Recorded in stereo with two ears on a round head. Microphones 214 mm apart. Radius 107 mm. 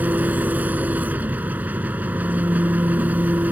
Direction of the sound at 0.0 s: 5° right (ahead or behind).